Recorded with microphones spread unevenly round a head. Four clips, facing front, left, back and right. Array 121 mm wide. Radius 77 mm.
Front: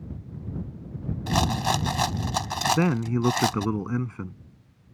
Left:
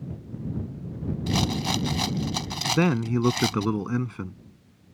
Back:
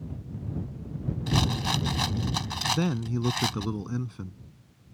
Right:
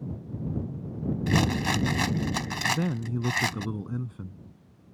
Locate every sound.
1.3 s a rattle: 30° right
2.7 s a man speaking: 65° left